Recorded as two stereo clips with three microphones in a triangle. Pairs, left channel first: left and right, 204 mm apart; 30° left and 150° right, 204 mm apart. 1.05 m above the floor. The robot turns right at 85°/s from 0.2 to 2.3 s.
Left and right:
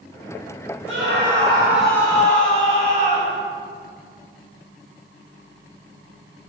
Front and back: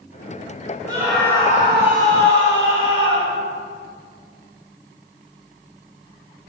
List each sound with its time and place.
0.9 s a scream: 80° right, 5 m; by 3.4 s 40° left, 5 m